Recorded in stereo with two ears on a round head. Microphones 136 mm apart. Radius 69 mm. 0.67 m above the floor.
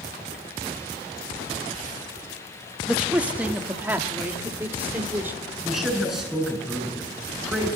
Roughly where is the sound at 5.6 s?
Centre.